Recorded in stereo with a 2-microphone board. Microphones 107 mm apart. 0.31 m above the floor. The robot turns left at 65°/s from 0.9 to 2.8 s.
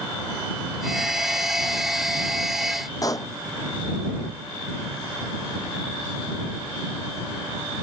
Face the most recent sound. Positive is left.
turn(degrees=35)  # may be behind; listen again after turning